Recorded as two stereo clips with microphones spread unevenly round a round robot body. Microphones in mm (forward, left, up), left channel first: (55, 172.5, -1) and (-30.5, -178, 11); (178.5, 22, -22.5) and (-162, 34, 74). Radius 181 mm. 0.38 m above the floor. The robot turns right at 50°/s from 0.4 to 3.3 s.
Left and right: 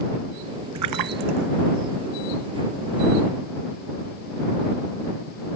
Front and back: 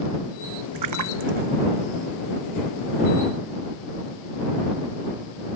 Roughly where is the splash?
Behind right.